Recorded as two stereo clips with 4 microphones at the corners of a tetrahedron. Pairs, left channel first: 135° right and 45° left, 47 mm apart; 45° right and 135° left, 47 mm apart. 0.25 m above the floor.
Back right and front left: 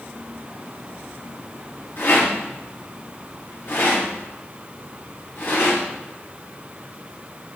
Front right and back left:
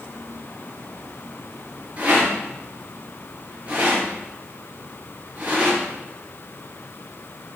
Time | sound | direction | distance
2.0 | a rattle | 165° right | 5 m